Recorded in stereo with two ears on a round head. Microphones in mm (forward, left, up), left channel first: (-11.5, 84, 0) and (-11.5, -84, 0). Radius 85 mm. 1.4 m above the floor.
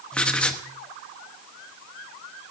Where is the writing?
5° left (ahead or behind), 0.9 m.